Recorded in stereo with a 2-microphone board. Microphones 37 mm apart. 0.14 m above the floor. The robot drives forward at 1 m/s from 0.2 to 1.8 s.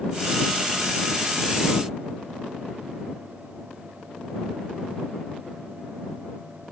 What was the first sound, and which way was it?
Only background noise.